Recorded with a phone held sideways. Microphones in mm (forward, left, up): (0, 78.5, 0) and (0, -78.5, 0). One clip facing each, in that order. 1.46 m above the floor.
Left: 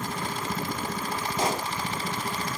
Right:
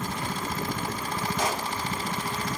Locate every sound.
1.4 s a pop: 30° left (ahead or behind), 3 m